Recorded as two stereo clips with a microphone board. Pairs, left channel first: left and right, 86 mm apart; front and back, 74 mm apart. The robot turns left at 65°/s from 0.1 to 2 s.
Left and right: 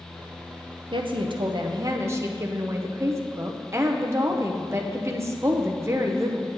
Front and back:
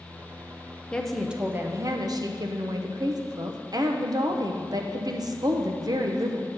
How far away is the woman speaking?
About 0.8 m.